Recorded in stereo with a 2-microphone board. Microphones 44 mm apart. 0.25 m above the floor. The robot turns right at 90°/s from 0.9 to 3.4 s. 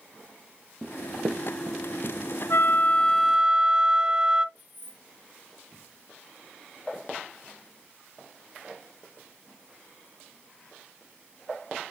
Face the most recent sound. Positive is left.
turn(degrees=-40)  # may be behind; listen again after turning